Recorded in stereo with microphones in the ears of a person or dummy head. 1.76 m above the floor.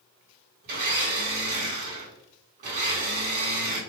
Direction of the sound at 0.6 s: 40° right (ahead or behind).